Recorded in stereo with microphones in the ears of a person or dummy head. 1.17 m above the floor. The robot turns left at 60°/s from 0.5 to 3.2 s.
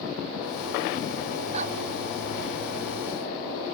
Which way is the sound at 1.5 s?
30° right (ahead or behind).